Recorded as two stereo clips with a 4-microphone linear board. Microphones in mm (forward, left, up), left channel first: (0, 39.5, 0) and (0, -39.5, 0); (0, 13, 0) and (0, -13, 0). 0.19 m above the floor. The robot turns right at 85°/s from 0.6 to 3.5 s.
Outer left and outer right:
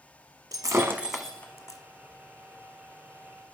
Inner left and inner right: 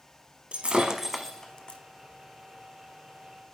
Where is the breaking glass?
50° right (ahead or behind), 0.9 m; by 1.8 s 50° left (ahead or behind), 0.9 m.